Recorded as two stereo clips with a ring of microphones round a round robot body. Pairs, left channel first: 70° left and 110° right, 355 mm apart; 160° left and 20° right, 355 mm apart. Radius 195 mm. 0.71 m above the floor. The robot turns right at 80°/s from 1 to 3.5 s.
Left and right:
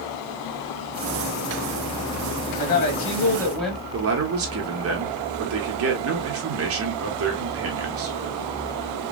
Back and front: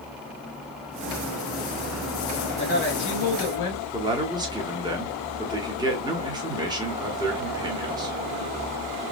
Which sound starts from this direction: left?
A woman speaking, at 2.6 s.